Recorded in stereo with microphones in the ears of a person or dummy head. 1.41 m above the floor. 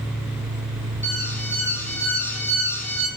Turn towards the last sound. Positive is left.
turn(degrees=10)  # may be behind; listen again after turning